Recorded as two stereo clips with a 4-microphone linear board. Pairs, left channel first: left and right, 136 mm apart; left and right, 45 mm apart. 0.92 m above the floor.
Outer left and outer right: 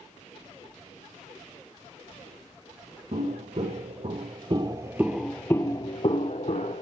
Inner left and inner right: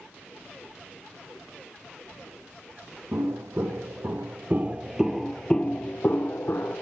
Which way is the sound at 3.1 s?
60° right (ahead or behind).